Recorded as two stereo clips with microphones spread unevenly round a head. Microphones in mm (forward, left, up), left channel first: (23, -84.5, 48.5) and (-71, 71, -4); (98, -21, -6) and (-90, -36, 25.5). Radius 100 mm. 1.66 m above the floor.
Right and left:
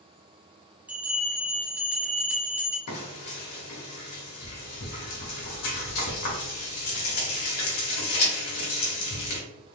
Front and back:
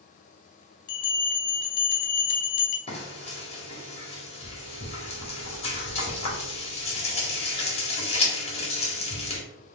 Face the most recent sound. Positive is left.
turn(degrees=-55)